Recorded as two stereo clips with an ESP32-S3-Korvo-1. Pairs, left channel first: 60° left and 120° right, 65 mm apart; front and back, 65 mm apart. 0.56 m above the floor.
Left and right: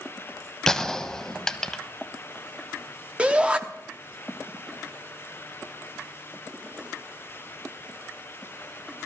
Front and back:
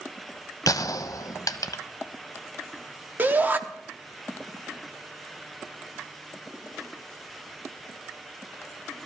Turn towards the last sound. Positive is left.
turn(degrees=-170)